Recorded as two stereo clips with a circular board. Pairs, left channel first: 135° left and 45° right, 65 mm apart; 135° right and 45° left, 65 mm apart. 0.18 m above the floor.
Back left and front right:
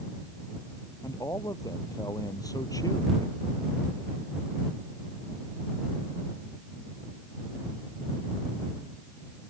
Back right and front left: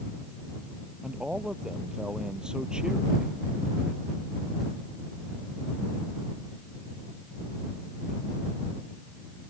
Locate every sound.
1.0 s a man speaking: 120° left